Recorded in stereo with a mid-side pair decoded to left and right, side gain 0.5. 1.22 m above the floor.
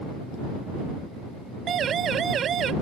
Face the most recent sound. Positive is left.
turn(degrees=-50)